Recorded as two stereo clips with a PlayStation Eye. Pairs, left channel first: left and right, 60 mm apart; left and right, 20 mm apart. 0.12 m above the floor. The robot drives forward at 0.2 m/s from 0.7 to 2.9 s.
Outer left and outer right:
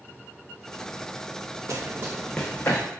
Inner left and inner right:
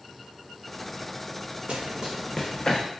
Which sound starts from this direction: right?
Running footsteps, at 1.7 s.